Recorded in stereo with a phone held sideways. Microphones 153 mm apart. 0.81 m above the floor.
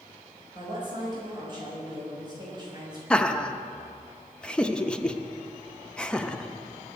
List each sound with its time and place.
0.6 s a woman speaking: 30° right (ahead or behind), 5 m
3.1 s laughter: 5° left (ahead or behind), 0.7 m